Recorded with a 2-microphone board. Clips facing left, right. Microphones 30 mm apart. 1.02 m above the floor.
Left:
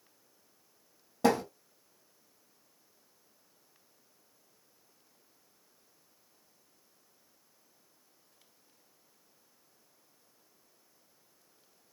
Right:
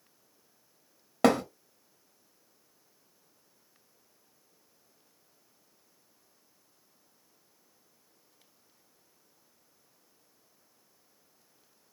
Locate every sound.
1.2 s a thud: 75° right (ahead or behind), 1.0 m